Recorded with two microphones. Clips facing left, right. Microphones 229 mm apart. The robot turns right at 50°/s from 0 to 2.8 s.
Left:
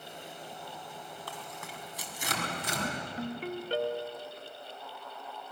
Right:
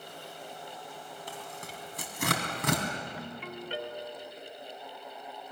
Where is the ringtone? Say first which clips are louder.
Left 5 dB; 40° left (ahead or behind), 1.2 m.